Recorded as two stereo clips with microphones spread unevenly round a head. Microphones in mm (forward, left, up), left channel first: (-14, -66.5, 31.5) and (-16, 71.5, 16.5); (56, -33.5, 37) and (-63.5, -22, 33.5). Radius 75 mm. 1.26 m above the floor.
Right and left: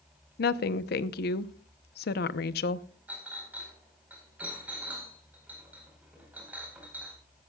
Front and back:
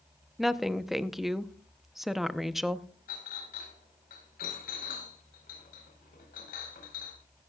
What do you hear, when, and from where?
0.4 s a woman speaking: 100° right, 0.8 m
3.1 s a clink: 10° left, 4.5 m